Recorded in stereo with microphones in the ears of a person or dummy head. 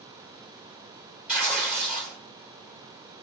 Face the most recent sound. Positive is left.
turn(degrees=5)  # may be behind; listen again after turning